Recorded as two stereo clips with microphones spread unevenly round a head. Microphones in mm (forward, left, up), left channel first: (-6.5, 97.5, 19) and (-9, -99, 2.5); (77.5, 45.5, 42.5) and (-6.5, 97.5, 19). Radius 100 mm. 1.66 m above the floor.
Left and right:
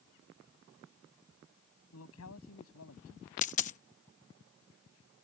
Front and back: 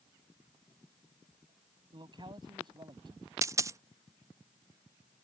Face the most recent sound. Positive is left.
turn(degrees=90)